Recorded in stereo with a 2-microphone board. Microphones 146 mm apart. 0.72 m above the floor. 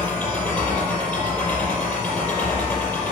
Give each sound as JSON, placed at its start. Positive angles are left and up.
{"t": 0.0, "sound": "an engine running", "side_deg": 10, "distance_m": 5.5}